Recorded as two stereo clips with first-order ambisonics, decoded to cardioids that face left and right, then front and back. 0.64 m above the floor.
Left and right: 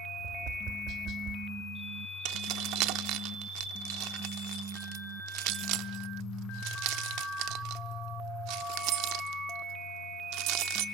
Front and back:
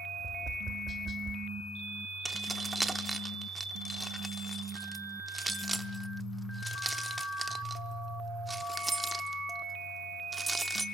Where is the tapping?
115° right, 1.4 m.